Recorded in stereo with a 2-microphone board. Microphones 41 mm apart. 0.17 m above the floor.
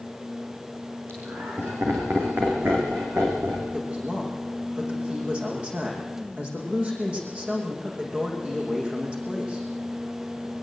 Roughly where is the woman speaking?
Right.